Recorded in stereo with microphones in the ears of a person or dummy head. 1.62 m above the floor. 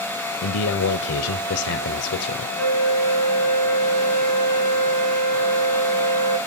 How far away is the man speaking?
About 0.7 m.